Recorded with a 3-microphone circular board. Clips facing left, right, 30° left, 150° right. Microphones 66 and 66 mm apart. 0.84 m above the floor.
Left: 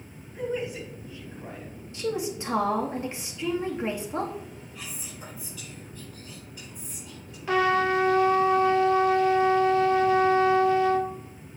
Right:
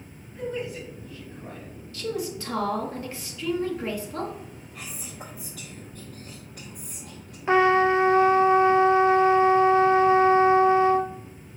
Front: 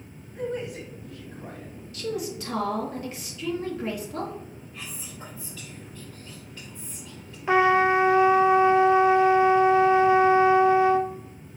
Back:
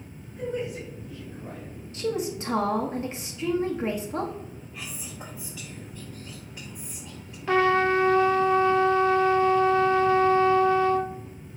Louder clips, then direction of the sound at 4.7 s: Right 4 dB, back 1 dB; 75° right.